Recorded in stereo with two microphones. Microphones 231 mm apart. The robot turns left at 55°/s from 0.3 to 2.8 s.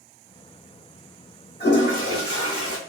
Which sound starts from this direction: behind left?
A toilet flushing, at 1.6 s.